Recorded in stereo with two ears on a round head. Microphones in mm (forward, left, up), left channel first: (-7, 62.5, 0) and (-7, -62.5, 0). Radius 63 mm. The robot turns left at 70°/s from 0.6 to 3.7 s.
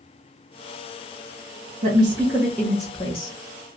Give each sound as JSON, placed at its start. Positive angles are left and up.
{"t": 1.8, "sound": "a woman speaking", "azimuth_deg": -130, "distance_m": 1.0}